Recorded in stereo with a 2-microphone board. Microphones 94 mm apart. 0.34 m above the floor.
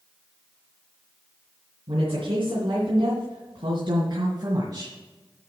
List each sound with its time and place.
1.9 s a woman speaking: 70° right (ahead or behind), 3 m; by 5.0 s 45° right (ahead or behind), 1.9 m